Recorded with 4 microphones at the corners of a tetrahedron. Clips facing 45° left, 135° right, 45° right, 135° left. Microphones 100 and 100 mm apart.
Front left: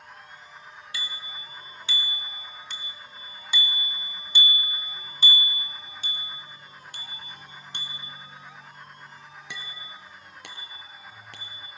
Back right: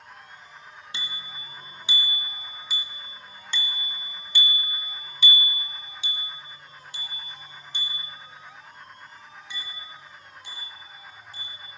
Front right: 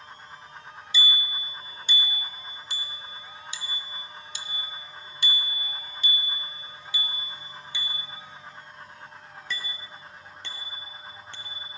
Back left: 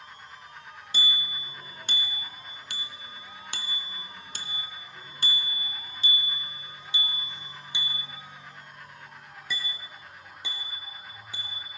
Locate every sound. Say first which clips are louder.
0.9 s a bicycle bell: even, front right 3 dB; 165° left, 2.5 m; by 11.7 s 50° left, 4.5 m